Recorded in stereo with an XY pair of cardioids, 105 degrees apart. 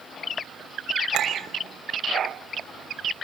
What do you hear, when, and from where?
1.1 s a clink: 65° right, 5.5 m